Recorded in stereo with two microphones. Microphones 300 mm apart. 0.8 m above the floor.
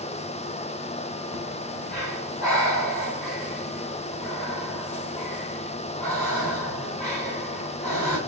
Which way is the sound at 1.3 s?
55° right (ahead or behind).